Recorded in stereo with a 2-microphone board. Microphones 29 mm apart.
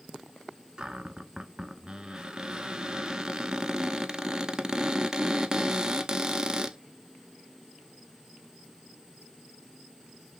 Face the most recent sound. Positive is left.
turn(degrees=-25)  # may be behind; listen again after turning